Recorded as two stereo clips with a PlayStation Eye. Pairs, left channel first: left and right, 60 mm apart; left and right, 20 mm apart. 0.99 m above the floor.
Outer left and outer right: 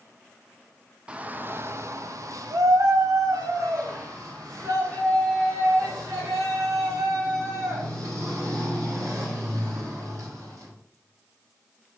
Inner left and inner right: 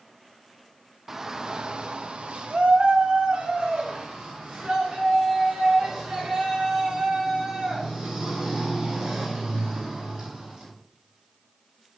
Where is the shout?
20° right (ahead or behind), 0.7 m; by 10.7 s 65° right (ahead or behind), 5.5 m.